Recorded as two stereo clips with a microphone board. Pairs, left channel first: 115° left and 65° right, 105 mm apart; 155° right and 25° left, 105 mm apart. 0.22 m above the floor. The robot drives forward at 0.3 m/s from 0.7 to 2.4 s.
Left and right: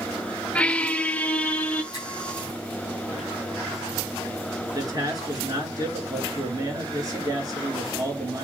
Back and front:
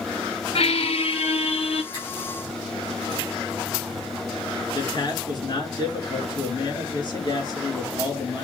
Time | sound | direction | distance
0.6 | a squeak | 170° right | 0.6 m
1.9 | a finger snap | 165° left | 6 m
4.8 | a man speaking | 120° right | 3.5 m